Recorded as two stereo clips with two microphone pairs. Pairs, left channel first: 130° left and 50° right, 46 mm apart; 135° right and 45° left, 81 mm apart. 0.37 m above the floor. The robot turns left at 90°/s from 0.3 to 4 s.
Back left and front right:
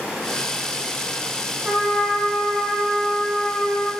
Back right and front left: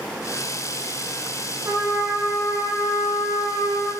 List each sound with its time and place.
1.6 s a trumpet: 10° left, 3 m; by 3.9 s 165° left, 3 m